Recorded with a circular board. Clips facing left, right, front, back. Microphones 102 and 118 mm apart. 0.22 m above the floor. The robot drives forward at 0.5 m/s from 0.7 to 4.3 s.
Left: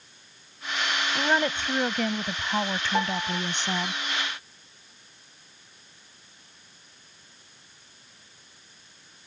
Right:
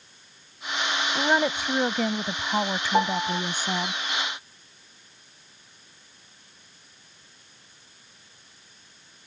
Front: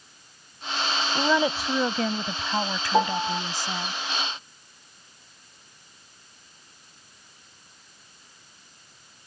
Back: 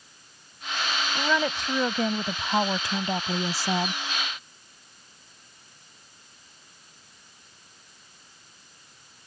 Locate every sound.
1.1 s a woman speaking: 25° right; by 3.9 s 170° right
2.9 s a piano: 20° right